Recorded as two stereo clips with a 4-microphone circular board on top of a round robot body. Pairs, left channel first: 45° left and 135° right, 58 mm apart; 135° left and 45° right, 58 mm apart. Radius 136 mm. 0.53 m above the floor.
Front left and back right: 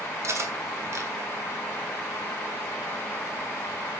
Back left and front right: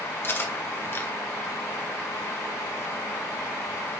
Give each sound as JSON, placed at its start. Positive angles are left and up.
{"t": 0.2, "sound": "cutlery clinking", "azimuth_deg": -170, "distance_m": 1.6}